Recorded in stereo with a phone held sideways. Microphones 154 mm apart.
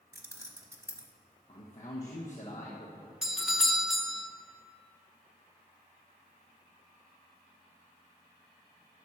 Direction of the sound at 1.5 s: 55° left (ahead or behind).